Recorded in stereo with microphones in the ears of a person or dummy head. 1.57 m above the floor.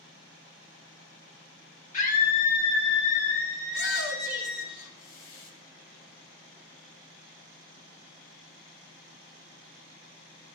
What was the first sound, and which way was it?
A scream, 50° left (ahead or behind).